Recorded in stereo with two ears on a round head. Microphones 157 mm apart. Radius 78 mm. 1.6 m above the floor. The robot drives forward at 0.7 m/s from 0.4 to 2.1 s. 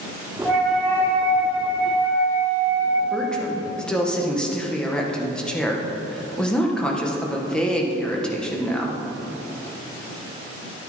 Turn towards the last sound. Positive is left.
turn(degrees=5)  # may be behind; listen again after turning